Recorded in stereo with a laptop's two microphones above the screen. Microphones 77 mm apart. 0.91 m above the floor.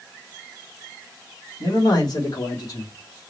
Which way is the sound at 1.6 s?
55° left (ahead or behind).